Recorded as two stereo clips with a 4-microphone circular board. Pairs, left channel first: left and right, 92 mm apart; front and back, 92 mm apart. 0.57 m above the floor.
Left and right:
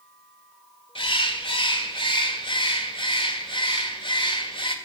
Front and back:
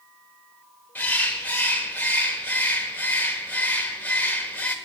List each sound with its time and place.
0.9 s a bird: 70° left, 1.6 m